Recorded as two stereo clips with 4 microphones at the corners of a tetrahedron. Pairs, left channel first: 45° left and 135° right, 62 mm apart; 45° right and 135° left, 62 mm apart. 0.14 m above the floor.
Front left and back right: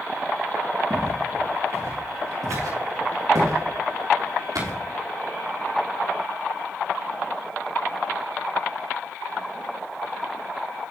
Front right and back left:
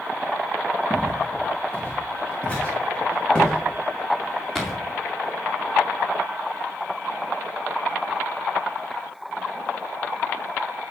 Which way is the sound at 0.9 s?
105° right.